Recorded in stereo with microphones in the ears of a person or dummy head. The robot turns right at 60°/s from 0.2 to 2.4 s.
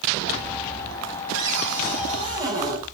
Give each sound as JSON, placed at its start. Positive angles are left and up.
{"t": 1.3, "sound": "a cupboard door", "azimuth_deg": -80, "distance_m": 5.5}